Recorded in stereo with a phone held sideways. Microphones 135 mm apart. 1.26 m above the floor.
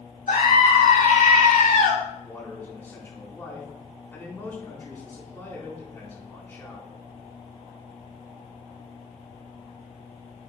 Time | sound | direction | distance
0.3 | a scream | 80° left | 3.5 m
2.2 | a man speaking | 20° left (ahead or behind) | 4 m